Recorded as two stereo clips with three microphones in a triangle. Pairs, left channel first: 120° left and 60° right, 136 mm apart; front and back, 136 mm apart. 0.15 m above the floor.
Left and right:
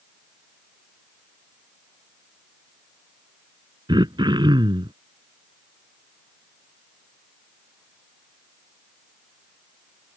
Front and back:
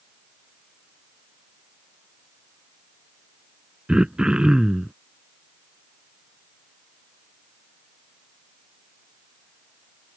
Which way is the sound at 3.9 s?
100° right.